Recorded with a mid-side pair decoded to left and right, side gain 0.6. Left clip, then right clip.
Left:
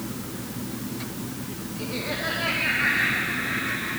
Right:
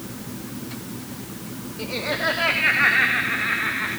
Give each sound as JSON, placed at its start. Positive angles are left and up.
{"t": 1.8, "sound": "laughter", "azimuth_deg": -35, "distance_m": 3.0}